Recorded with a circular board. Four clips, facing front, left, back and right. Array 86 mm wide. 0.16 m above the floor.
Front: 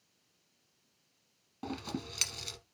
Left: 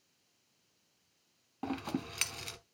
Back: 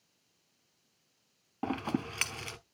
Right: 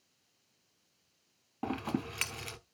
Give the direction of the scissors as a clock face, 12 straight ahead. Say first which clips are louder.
Right 2 dB, back 6 dB; 5 o'clock.